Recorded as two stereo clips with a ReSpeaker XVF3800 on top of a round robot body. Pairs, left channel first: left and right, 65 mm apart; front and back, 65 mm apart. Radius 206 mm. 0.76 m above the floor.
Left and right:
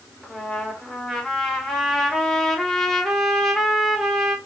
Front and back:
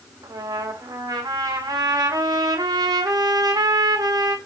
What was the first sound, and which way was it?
A trumpet, 175° left.